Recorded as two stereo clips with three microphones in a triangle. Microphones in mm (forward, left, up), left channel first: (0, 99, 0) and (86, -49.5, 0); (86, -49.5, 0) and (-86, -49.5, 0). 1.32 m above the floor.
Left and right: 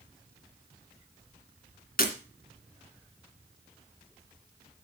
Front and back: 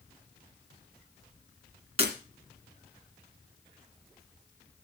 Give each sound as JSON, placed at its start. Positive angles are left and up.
{"t": 2.0, "sound": "breaking glass", "azimuth_deg": 135, "distance_m": 2.5}